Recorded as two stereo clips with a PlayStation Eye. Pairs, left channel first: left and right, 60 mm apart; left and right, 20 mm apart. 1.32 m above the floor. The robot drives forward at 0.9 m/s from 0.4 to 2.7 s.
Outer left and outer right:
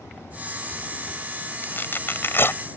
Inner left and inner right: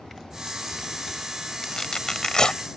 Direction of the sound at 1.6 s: 35° left (ahead or behind).